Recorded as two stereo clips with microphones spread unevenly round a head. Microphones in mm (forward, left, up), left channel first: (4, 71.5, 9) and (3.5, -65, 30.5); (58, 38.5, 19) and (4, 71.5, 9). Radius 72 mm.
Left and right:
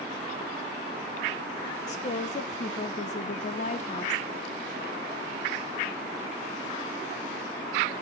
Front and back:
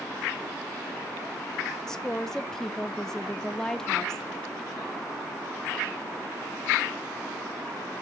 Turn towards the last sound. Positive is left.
turn(degrees=50)